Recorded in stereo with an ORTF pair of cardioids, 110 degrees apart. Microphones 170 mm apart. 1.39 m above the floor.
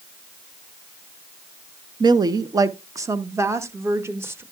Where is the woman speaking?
25° right, 1.0 m; by 4.4 s 15° right, 2.5 m.